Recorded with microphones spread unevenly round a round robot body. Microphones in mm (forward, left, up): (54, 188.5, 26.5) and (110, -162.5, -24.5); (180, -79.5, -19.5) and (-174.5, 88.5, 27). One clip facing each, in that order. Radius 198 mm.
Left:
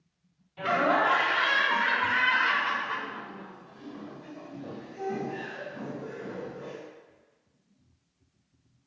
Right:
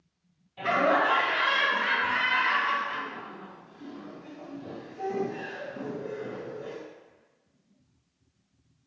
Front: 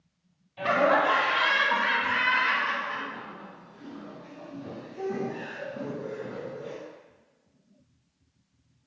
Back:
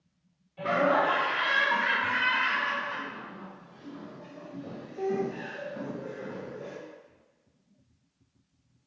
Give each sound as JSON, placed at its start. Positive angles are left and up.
{"t": 0.6, "sound": "laughter", "azimuth_deg": 25, "distance_m": 1.5}